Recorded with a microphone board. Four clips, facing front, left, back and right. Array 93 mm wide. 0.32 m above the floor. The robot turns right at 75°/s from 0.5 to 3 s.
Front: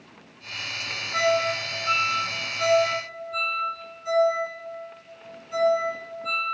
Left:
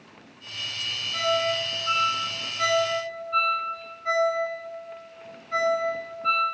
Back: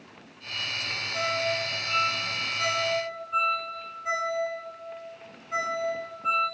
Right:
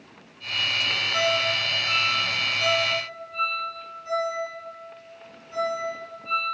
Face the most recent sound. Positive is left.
turn(degrees=125)